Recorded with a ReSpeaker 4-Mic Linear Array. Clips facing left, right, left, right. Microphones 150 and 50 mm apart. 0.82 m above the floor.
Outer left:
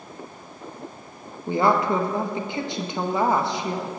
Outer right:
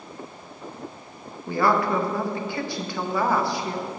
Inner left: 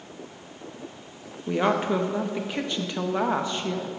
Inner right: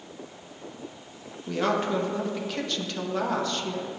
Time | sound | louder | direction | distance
1.5 | a woman speaking | outer left 1 dB, inner left 2 dB | 20° left (ahead or behind) | 0.7 m